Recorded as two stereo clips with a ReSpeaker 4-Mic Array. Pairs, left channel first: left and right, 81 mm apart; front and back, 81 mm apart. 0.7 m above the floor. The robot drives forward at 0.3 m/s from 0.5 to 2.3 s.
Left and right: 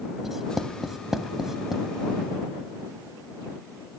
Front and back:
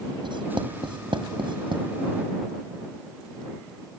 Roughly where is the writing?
Behind.